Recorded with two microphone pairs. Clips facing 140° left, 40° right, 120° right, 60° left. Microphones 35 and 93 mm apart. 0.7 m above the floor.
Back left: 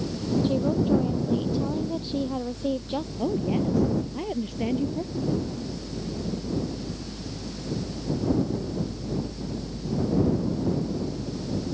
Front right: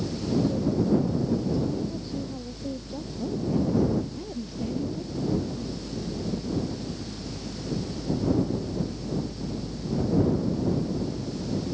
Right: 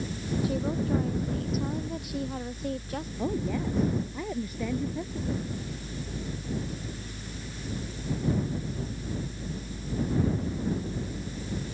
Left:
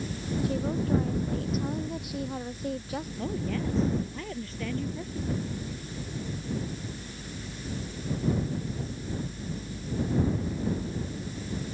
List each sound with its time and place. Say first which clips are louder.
0.4 s a woman speaking: back left 3 dB, even; 155° left; by 3.1 s 150° left
3.2 s a woman speaking: even, right 3 dB; 165° left